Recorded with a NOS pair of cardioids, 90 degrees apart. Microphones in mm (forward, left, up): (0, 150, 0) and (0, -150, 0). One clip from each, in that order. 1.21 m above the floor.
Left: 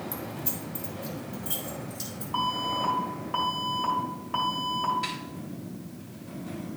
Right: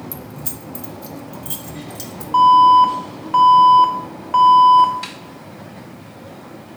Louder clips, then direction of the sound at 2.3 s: Right 20 dB; 45° right.